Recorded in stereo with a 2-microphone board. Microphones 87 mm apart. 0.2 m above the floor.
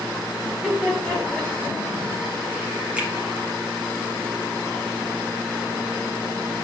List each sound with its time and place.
0.5 s laughter: 5° right (ahead or behind), 2.5 m; by 1.8 s 20° left (ahead or behind), 1.7 m
3.0 s a finger snap: 15° right (ahead or behind), 1.1 m